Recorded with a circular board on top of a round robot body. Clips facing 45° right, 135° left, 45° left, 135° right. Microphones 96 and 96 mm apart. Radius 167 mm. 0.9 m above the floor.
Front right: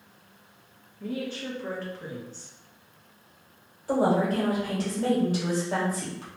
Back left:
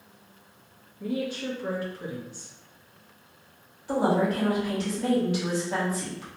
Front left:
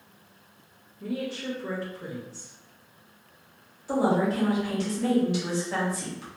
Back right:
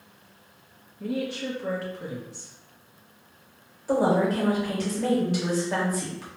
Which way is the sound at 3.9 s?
95° right.